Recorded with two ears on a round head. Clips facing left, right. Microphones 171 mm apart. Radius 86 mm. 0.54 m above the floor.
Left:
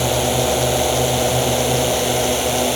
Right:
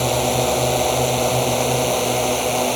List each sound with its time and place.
0.0 s a drone: 5° left (ahead or behind); by 2.8 s 10° left (ahead or behind)